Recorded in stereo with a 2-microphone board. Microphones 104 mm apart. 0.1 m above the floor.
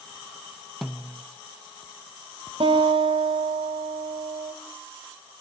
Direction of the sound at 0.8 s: Centre (ahead or behind).